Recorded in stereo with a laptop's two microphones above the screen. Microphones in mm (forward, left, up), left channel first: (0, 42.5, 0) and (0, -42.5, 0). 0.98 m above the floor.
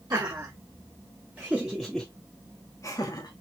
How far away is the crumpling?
I don't hear crumpling.